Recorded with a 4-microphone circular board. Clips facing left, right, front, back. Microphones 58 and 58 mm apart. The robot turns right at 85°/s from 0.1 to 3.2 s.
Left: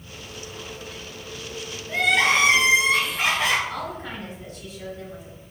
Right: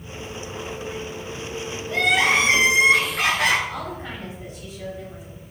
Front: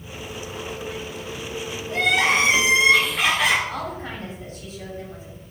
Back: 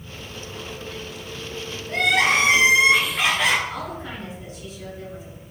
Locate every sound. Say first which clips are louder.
1.9 s crying: right 1 dB, back 1 dB; 160° left, 1.4 m; by 3.6 s 90° right, 1.4 m
3.7 s a woman speaking: even, front 1 dB; 20° right, 1.9 m